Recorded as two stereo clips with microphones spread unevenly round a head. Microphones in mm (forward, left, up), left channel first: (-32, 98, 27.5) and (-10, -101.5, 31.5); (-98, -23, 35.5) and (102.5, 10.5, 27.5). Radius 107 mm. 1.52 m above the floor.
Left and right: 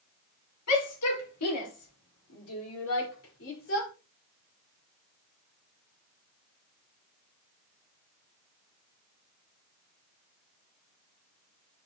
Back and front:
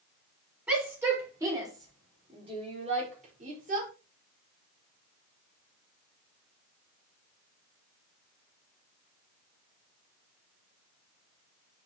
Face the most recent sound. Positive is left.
turn(degrees=60)